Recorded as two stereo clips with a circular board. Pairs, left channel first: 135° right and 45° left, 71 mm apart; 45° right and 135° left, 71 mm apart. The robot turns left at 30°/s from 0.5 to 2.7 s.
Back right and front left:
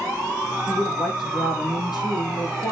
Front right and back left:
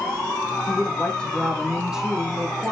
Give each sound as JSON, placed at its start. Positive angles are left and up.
{"t": 0.7, "sound": "a woman speaking", "azimuth_deg": -105, "distance_m": 7.5}